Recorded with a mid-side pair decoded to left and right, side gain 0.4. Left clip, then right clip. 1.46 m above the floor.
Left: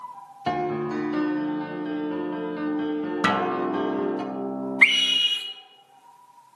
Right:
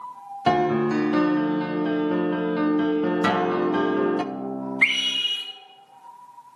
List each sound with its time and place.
0.5 s a piano: 50° right, 0.6 m
3.2 s a guitar: 15° left, 0.9 m
4.8 s a scream: 35° left, 1.7 m